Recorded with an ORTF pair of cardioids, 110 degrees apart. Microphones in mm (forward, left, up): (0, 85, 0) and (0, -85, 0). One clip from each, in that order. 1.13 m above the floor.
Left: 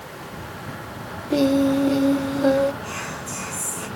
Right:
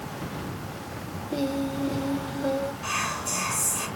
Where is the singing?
40° left, 0.6 m.